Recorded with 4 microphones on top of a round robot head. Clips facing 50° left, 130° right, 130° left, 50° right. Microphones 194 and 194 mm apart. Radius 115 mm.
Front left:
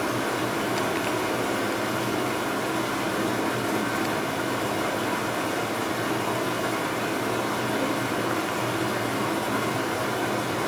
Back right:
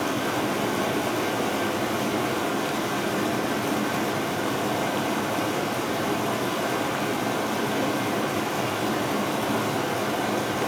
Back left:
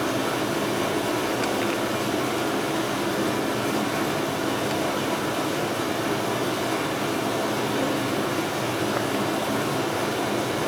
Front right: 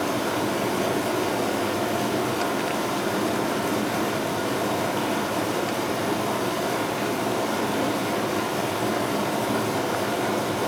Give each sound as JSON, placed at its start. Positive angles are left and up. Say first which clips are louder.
{"t": 0.0, "sound": "running water", "louder": "back right 1 dB, even", "azimuth_deg": -120, "distance_m": 3.0}